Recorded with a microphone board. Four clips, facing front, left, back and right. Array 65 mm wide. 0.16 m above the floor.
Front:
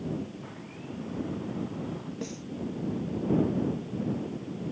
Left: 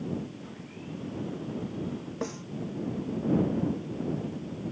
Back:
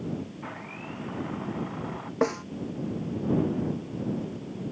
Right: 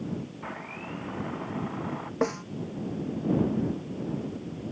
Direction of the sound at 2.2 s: 150° right.